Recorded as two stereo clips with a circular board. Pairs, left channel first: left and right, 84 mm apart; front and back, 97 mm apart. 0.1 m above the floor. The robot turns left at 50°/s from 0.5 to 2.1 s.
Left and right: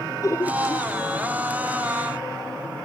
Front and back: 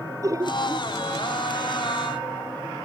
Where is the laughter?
130° left; by 0.9 s 115° left.